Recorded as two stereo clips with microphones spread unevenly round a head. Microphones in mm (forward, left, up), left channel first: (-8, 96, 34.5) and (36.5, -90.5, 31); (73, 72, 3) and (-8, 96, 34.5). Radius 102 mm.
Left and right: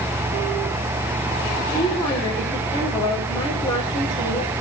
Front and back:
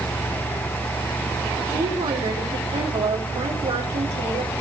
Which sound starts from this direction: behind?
A woman speaking, at 1.7 s.